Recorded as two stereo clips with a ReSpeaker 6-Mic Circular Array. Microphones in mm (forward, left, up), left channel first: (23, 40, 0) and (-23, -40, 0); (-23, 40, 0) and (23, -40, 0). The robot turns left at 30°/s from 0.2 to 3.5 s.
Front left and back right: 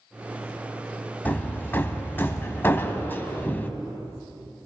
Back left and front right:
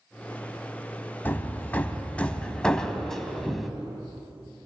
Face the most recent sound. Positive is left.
turn(degrees=30)